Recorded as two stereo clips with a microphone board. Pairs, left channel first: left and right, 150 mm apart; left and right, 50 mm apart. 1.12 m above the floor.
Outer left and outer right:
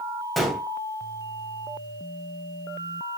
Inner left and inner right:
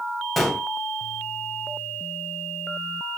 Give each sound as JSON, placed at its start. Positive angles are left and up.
{"t": 0.4, "sound": "a gunshot", "side_deg": 0, "distance_m": 1.8}